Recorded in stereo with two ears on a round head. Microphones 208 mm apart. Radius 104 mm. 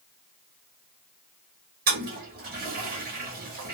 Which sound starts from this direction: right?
A toilet flushing, at 1.9 s.